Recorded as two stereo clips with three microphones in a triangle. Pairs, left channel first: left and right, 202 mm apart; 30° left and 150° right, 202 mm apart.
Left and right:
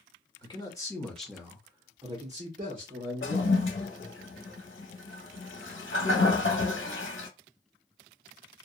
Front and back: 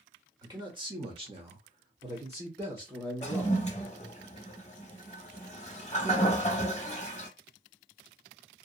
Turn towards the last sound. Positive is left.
turn(degrees=85)